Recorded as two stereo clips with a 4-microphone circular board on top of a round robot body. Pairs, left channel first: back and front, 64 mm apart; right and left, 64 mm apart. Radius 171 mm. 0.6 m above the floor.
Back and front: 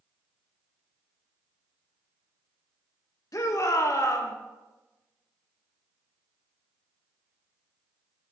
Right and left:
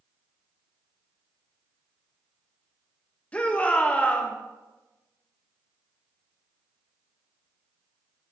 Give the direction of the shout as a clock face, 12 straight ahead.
5 o'clock.